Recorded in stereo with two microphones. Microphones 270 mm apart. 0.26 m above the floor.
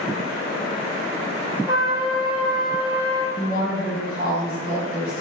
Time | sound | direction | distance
1.7 | a trumpet | 20° left (ahead or behind) | 0.8 m
3.4 | a woman speaking | 30° right (ahead or behind) | 1.6 m